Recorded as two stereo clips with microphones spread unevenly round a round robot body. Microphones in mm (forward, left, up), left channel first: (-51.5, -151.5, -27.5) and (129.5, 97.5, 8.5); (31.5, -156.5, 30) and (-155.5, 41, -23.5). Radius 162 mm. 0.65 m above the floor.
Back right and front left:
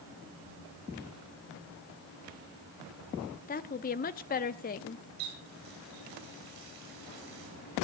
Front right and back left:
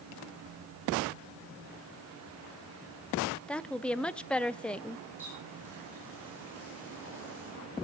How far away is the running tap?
About 7.5 m.